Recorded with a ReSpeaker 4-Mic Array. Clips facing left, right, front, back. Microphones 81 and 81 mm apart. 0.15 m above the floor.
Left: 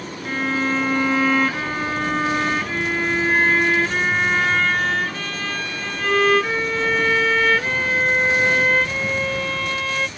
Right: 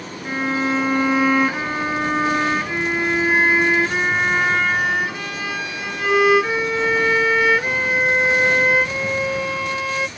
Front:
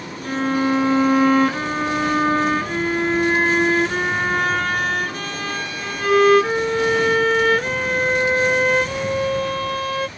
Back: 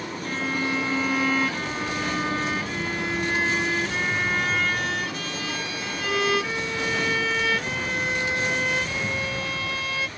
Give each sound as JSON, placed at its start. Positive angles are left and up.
{"t": 0.2, "sound": "a violin", "azimuth_deg": -15}